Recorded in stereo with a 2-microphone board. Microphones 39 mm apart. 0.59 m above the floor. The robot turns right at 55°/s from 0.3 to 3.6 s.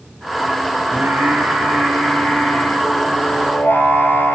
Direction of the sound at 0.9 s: 95° right.